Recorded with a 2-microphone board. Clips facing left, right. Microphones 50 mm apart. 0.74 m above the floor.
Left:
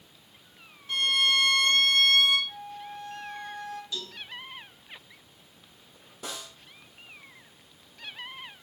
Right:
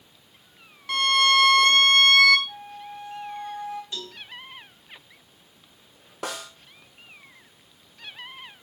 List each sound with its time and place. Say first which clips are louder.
0.9 s a violin: right 5 dB; 85° right, 0.7 m
2.5 s a flute: right 1 dB; 20° right (ahead or behind), 1.8 m
3.9 s a cowbell: right 1 dB; 35° right (ahead or behind), 5 m
6.2 s a snare drum: right 6 dB; 70° right (ahead or behind), 1.0 m